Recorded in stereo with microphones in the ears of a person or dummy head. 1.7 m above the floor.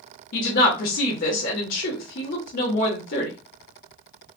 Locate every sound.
0.3 s a woman speaking: 60° left (ahead or behind), 1.0 m